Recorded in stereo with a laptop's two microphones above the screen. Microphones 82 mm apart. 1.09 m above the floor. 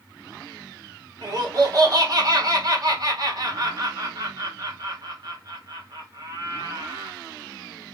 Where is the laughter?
50° right (ahead or behind), 1.5 m.